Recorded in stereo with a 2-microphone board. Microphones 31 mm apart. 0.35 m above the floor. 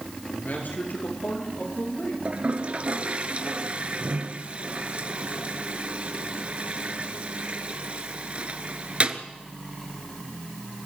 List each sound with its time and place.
0.3 s a man speaking: 80° left, 5.5 m; by 2.1 s 85° left, 8 m
2.2 s a toilet flushing: 40° right (ahead or behind), 1.2 m